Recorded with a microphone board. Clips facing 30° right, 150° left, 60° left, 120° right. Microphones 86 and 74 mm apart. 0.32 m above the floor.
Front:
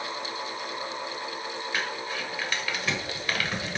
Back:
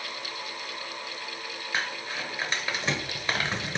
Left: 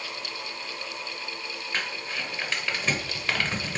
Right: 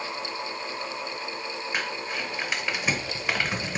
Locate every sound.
1.7 s crumpling: 175° left, 0.8 m